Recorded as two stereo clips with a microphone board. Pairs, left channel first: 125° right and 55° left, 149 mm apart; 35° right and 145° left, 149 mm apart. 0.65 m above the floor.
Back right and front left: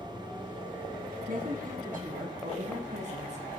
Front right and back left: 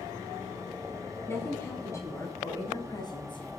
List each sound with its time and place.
1.3 s a woman speaking: 40° left, 6.5 m; by 3.5 s 20° left, 5 m